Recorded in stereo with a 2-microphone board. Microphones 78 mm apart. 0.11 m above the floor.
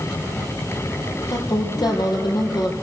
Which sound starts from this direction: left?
A woman speaking, at 1.3 s.